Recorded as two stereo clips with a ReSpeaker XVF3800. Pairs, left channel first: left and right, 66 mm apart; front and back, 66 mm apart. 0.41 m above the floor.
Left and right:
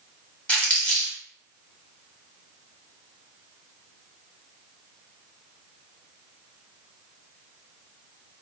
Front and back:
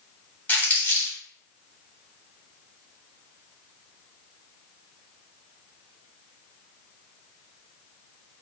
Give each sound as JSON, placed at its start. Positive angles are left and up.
{"t": 0.5, "sound": "crumpling", "azimuth_deg": 35, "distance_m": 1.4}